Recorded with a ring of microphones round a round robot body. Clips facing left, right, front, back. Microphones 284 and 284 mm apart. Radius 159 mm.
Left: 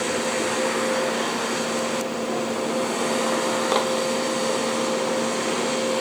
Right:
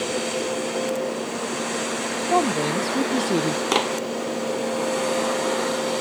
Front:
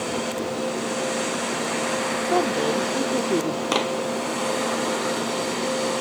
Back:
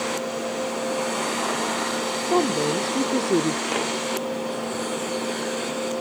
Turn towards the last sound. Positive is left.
turn(degrees=-45)